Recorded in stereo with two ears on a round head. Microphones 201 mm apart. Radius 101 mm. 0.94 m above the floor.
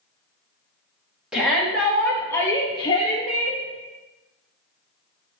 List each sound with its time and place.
1.3 s a shout: 5° right (ahead or behind), 1.9 m; by 3.6 s 40° left (ahead or behind), 1.4 m